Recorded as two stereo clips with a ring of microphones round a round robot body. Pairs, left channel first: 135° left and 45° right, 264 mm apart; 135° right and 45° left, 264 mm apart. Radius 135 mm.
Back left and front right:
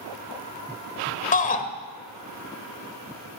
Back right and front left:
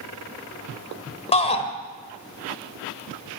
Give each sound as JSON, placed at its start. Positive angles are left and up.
{"t": 1.3, "sound": "a shout", "azimuth_deg": 175, "distance_m": 1.2}